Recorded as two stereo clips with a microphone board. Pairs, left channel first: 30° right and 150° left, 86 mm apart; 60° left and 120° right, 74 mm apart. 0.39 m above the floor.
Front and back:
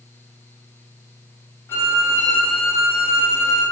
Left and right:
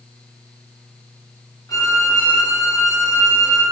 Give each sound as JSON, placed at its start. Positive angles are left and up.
{"t": 1.7, "sound": "a violin", "azimuth_deg": 35, "distance_m": 1.4}